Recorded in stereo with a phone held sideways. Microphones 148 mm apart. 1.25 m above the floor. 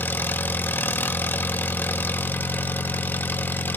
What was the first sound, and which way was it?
An engine running, 15° left (ahead or behind).